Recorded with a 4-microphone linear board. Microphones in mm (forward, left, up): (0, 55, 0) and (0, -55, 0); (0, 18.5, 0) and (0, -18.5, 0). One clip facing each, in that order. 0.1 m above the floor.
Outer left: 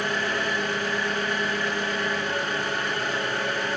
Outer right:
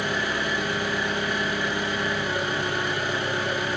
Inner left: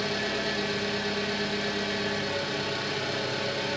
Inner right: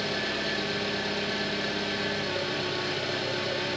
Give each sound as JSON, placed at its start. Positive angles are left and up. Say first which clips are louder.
{"t": 0.0, "sound": "an engine running", "louder": "even, inner left 1 dB", "side_deg": -10, "distance_m": 1.1}